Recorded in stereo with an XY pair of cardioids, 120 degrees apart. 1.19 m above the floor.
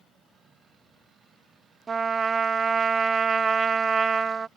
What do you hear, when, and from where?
1.9 s a trumpet: 35° right